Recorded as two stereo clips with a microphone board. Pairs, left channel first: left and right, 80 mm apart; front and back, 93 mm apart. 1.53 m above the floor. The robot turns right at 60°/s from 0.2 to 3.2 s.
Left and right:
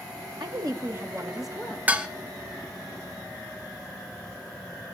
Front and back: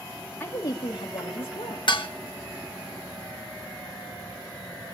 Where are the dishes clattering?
20° right, 1.3 m; by 2.1 s 10° right, 1.3 m.